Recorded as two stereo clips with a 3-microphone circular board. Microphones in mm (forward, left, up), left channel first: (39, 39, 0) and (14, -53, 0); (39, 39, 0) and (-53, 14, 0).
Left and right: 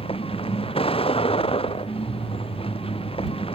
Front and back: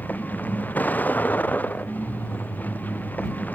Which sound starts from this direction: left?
A vehicle, at 0.0 s.